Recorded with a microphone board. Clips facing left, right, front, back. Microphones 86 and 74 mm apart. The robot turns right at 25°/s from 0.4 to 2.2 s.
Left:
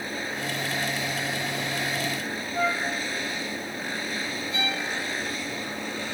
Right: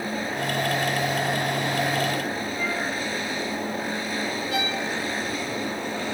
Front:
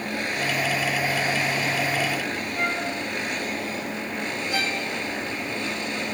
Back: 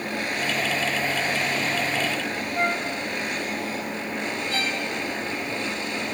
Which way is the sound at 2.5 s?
130° left.